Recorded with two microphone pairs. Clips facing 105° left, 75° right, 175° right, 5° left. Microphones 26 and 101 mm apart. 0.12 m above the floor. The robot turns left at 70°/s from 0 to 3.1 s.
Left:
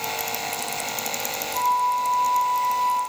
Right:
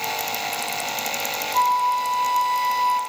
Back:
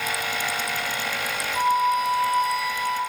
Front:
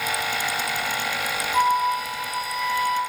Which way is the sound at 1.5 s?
25° right.